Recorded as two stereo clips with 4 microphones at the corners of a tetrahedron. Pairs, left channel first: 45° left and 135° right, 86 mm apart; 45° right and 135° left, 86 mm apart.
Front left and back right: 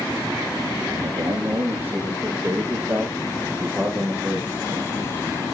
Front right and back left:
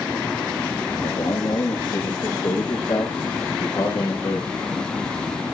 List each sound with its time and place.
0.9 s a man speaking: 70° right, 6.5 m; by 4.9 s 40° right, 8.5 m